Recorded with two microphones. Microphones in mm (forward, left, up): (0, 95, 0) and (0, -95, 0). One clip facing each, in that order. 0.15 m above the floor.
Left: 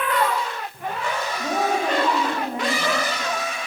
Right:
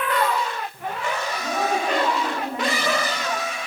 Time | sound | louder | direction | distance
1.4 | a woman speaking | left 2 dB | 35° left (ahead or behind) | 9.5 m